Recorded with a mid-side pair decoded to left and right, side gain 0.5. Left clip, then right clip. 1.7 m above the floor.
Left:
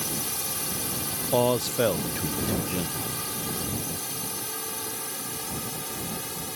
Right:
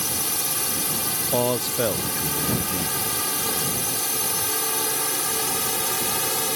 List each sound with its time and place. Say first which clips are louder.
0.0 s a drone: right 5 dB; 35° right; by 6.6 s 60° right
1.1 s a man speaking: left 1 dB; straight ahead